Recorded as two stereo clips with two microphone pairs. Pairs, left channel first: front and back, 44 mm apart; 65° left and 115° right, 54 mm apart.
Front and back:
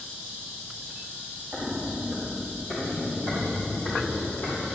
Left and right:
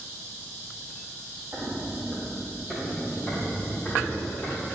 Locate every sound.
1.5 s footsteps: 85° right, 2 m; by 4.7 s 15° left, 4 m